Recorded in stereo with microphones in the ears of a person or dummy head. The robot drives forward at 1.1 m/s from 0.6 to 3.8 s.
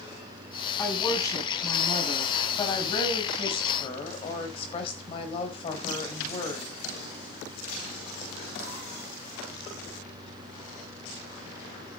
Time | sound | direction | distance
0.8 | a woman speaking | 20° left (ahead or behind) | 7.5 m